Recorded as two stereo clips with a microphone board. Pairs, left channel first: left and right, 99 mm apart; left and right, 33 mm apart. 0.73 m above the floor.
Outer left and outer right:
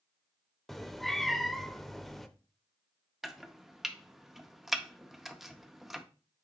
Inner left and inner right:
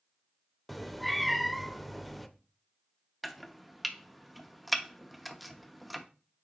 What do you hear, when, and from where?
0.7 s a cat meowing: centre (ahead or behind), 0.5 m
3.2 s chopping: centre (ahead or behind), 0.6 m